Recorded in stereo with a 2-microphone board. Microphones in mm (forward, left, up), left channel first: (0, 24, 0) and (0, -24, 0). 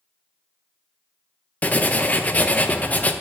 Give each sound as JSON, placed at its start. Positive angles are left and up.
{"t": 1.6, "sound": "writing", "side_deg": 30, "distance_m": 0.5}